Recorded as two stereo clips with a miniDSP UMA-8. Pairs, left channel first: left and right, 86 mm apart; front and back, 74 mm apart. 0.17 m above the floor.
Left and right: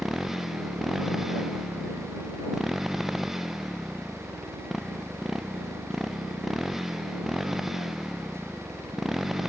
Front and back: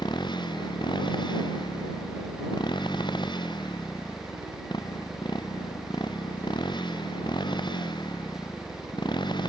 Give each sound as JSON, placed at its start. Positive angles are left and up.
{"t": 0.0, "sound": "a motorcycle", "azimuth_deg": -5}